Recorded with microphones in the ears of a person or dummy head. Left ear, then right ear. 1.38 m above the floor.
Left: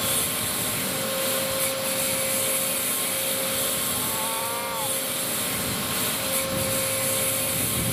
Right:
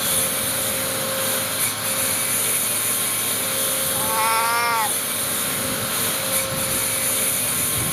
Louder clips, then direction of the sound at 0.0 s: Right 3 dB; 10° right (ahead or behind).